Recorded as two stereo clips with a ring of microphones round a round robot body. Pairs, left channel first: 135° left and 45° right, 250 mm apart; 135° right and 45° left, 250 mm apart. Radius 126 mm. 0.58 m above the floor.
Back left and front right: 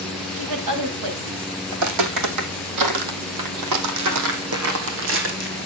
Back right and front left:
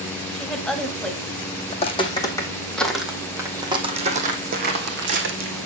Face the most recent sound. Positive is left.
turn(degrees=5)